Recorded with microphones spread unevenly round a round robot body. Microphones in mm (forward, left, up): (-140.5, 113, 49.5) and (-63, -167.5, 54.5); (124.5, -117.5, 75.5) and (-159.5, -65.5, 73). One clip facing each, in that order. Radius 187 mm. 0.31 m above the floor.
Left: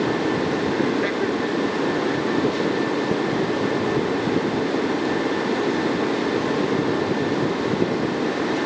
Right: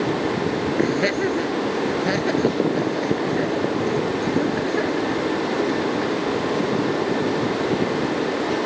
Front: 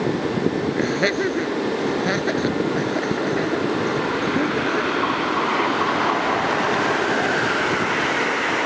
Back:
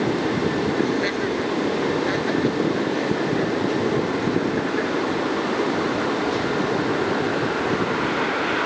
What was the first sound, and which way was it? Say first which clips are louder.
Laughter: right 1 dB, front 1 dB; 25° right.